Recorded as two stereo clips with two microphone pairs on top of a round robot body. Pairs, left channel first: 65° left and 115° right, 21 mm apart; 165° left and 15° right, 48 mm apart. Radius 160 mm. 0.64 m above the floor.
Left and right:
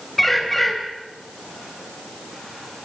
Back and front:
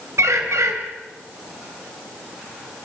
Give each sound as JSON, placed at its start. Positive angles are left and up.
{"t": 0.2, "sound": "a bird", "azimuth_deg": -15, "distance_m": 3.0}